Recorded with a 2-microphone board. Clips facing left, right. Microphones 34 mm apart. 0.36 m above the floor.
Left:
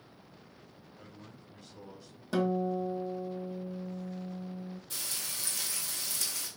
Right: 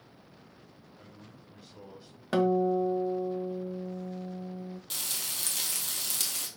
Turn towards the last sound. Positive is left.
turn(degrees=-80)